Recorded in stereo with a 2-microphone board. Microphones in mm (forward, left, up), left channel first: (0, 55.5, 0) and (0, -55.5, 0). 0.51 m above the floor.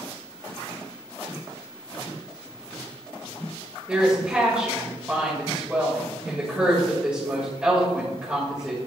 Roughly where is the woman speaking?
Centre.